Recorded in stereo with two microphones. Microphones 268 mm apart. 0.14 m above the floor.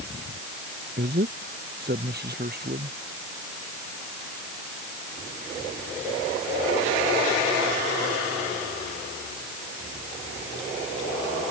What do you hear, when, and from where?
1.0 s a man speaking: 40° right (ahead or behind); by 3.0 s 35° right (ahead or behind)